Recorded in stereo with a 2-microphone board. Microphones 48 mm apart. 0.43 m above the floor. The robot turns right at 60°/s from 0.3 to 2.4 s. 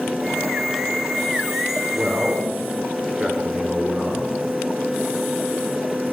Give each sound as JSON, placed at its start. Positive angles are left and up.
{"t": 1.9, "sound": "a man speaking", "side_deg": 0, "distance_m": 1.0}